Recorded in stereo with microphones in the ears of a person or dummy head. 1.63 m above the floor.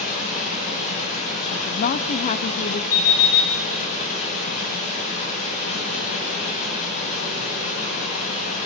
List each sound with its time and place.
0.0 s running water: 45° left (ahead or behind), 9 m
1.5 s a woman speaking: 45° left (ahead or behind), 0.8 m
2.9 s an alarm clock: 80° left, 6.5 m